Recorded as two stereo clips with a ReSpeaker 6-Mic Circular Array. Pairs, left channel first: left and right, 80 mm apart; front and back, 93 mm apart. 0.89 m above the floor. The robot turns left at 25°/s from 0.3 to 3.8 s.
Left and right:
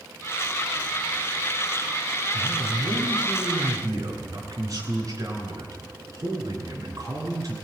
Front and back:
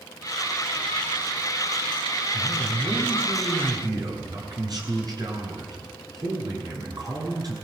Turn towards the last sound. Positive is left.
turn(degrees=-135)